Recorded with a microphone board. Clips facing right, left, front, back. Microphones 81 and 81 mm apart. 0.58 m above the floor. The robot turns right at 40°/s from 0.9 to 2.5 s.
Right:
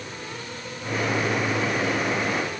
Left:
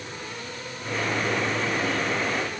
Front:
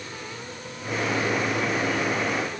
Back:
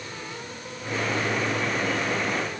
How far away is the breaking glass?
No breaking glass in this recording.